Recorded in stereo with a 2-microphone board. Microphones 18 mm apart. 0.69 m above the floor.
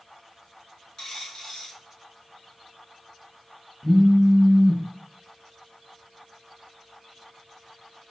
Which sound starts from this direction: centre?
A phone buzzing, at 3.8 s.